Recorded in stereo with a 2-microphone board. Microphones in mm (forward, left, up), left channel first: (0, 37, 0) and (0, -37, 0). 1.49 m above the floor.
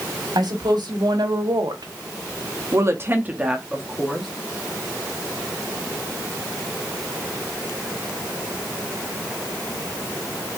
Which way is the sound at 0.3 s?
65° right (ahead or behind).